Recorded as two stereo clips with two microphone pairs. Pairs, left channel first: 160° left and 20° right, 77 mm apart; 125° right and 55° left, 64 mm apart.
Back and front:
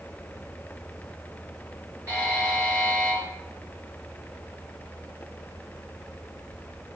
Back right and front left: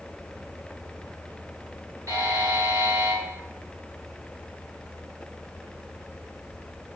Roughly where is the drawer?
I don't hear a drawer.